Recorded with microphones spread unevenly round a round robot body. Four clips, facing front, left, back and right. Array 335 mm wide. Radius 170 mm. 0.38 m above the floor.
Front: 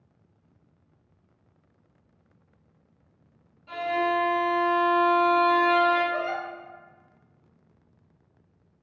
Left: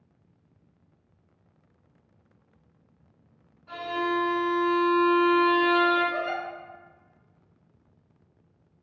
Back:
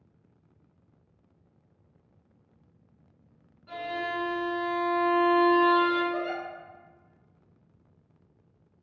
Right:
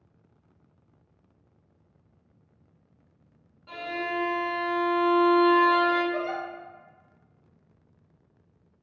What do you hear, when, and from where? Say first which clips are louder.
3.7 s a violin: left 4 dB, front 7 dB; 95° right, 1.3 m
6.1 s a giggle: even, front 2 dB; 60° left, 1.3 m